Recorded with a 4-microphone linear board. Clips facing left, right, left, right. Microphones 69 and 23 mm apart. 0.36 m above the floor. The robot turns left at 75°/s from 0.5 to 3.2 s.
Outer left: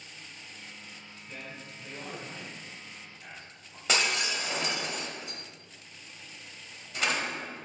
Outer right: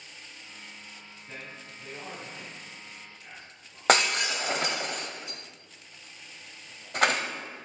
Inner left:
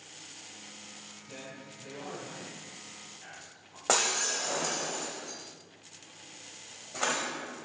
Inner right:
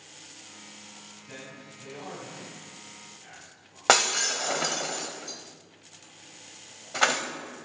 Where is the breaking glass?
60° right (ahead or behind), 0.8 m.